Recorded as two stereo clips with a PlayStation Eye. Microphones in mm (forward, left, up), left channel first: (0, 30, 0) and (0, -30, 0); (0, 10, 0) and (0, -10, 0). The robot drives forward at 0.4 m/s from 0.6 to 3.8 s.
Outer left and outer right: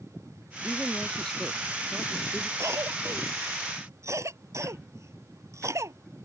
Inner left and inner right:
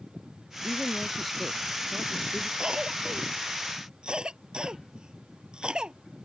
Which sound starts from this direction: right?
A cough, at 2.6 s.